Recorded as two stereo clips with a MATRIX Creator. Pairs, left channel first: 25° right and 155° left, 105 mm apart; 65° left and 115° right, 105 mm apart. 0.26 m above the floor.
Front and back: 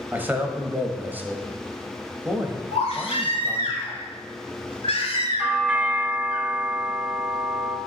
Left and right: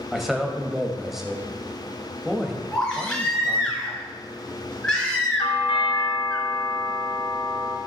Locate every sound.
0.1 s a man speaking: 165° left, 0.9 m
2.7 s a baby crying: 15° right, 2 m
5.4 s a doorbell: 80° left, 2 m